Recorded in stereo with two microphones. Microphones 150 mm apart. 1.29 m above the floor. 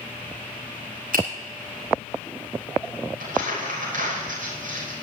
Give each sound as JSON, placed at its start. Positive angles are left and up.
{"t": 1.1, "sound": "a finger snap", "side_deg": -70, "distance_m": 6.5}
{"t": 3.2, "sound": "crumpling", "side_deg": -60, "distance_m": 6.0}